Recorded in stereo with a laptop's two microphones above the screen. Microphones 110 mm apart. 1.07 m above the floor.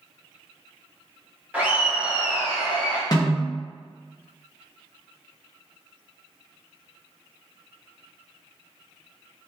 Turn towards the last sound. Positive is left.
turn(degrees=35)  # may be behind; listen again after turning